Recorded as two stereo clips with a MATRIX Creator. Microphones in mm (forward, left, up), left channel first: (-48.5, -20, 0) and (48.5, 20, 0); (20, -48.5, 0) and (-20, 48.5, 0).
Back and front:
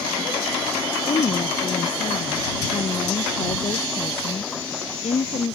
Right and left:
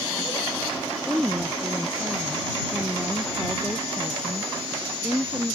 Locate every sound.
1.1 s a woman speaking: 165° right